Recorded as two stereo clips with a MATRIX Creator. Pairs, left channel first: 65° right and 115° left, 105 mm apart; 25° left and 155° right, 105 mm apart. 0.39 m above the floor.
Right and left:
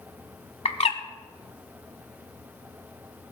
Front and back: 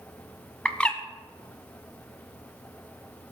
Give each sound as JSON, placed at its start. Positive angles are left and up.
{"t": 0.7, "sound": "a bird", "azimuth_deg": -55, "distance_m": 1.1}